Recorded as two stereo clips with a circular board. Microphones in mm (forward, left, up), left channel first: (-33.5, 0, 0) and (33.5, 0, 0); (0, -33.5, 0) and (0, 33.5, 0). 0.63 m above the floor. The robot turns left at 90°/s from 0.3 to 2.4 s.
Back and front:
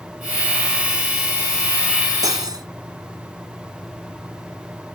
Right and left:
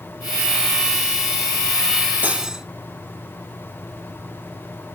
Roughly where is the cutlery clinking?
Ahead left.